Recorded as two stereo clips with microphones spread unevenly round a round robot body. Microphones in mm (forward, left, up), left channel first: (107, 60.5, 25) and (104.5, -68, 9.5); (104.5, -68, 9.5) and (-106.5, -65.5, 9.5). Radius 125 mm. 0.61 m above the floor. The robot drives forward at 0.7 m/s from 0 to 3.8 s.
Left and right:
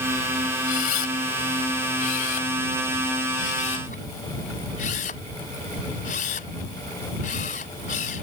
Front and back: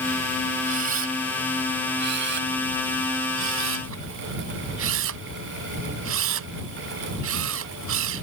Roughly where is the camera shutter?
Behind left.